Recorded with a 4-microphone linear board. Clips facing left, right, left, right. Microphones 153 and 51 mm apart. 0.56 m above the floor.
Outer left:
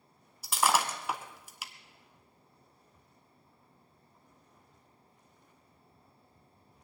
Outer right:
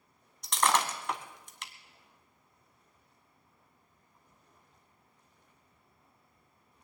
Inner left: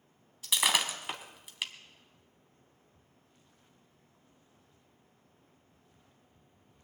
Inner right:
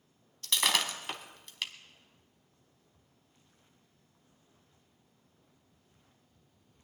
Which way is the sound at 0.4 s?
5° left (ahead or behind).